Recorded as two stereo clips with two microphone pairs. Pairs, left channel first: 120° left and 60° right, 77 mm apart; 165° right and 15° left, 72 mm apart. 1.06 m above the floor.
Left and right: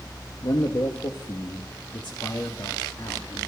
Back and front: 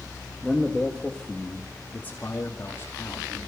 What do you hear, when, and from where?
0.4 s a man speaking: 105° left, 1.7 m; by 3.4 s 150° left, 2.5 m